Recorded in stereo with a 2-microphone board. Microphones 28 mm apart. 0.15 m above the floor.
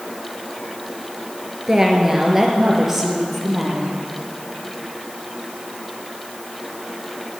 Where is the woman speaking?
15° right (ahead or behind), 2 m; by 4.0 s centre (ahead or behind), 3.5 m.